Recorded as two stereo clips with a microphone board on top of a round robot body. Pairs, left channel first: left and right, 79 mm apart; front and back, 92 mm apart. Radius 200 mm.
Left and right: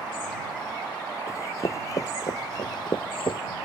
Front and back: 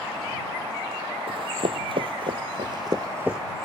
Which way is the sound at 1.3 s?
150° left.